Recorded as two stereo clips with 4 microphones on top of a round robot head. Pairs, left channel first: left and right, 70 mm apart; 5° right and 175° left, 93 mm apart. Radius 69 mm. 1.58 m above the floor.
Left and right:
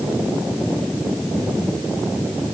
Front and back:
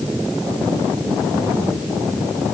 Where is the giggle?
I don't hear a giggle.